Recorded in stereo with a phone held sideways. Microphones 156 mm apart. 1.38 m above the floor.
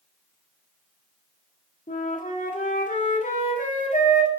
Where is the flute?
55° left (ahead or behind), 1.9 m.